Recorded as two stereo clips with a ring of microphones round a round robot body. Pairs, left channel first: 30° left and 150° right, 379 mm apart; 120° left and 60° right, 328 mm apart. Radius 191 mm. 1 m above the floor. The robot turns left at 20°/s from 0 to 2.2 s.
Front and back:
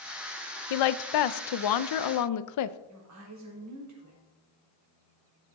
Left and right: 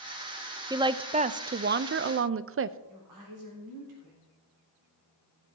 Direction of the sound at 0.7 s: 20° left.